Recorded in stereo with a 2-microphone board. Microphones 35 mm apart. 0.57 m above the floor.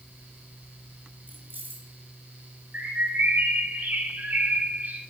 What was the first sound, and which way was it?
Keys jangling, 70° right (ahead or behind).